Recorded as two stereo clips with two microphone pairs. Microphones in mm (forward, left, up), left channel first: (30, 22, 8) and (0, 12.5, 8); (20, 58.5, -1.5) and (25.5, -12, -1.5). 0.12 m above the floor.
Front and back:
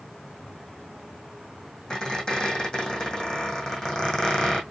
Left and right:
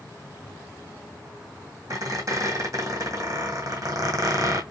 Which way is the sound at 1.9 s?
50° right.